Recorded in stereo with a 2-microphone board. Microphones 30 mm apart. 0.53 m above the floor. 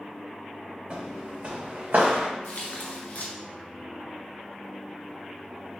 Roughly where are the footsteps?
Right.